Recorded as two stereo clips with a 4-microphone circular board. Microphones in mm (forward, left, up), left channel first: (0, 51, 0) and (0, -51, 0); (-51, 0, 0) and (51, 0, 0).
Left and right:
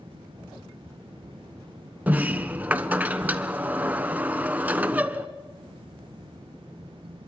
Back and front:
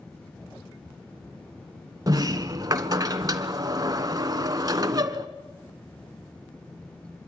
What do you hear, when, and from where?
2.1 s a sliding door: 25° right, 1.1 m